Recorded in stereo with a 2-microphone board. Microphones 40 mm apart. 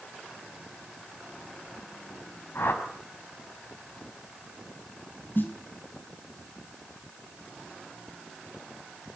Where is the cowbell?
No cowbell in this recording.